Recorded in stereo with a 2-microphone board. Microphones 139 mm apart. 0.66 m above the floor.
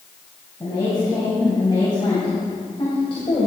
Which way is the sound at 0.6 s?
25° left (ahead or behind).